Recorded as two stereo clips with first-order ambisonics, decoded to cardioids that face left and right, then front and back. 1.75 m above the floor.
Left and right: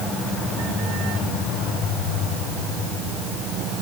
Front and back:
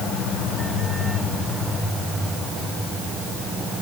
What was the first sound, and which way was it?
Only background noise.